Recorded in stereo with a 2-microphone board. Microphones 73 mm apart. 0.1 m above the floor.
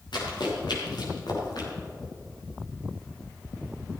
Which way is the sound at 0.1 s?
90° left.